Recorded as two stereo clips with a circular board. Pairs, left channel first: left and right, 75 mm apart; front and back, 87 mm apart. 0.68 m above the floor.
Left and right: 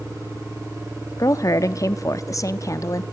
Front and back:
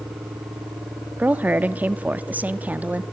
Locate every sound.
1.2 s a woman speaking: 115° left, 0.9 m